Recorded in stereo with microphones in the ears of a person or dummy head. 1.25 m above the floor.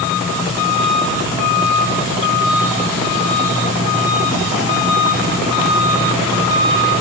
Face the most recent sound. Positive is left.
No sound to turn to.